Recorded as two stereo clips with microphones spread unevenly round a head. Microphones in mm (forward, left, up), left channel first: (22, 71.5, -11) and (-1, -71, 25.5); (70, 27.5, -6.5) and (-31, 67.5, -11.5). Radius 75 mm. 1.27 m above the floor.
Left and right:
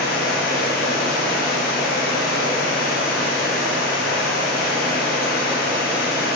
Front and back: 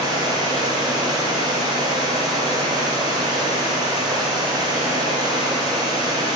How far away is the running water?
About 2.5 m.